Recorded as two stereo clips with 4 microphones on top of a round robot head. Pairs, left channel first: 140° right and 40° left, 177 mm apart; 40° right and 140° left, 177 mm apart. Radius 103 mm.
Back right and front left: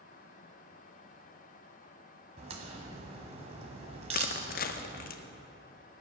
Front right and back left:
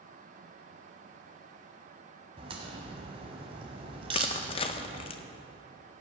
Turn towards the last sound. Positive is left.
turn(degrees=-100)